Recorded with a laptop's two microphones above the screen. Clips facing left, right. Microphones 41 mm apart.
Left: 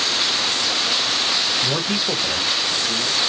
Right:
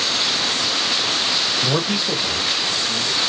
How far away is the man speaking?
About 0.7 m.